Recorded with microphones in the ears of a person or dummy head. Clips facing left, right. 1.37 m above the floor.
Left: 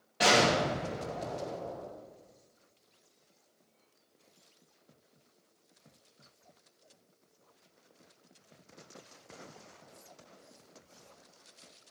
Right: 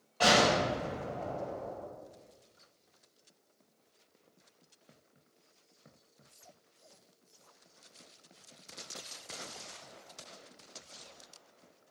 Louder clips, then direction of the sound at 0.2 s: Even; 15° left (ahead or behind).